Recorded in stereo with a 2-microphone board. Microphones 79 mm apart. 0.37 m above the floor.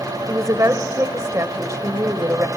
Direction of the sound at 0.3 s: 45° right (ahead or behind).